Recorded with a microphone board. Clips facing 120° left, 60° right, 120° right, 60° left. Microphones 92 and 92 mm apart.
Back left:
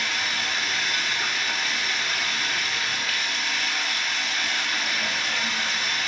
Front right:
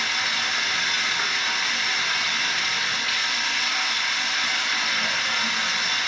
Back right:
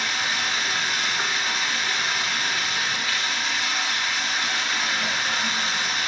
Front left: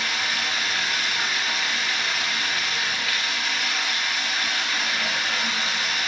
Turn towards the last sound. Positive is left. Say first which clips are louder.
# front right 1 dB, back right 1 dB
turn(degrees=-55)